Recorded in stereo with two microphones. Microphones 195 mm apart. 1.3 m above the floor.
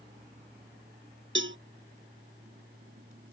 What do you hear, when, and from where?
1.4 s a cowbell: 75° right (ahead or behind)